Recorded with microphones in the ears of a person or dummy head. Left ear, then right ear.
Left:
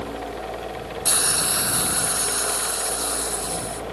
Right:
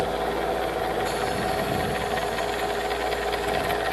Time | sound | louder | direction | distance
1.1 | a hiss | left 1 dB | 60° left (ahead or behind) | ?